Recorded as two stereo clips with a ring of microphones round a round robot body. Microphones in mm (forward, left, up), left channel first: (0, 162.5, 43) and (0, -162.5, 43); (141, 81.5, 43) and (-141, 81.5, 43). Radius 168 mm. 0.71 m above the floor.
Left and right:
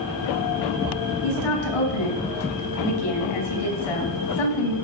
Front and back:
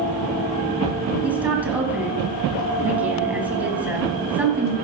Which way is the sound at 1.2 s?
95° left.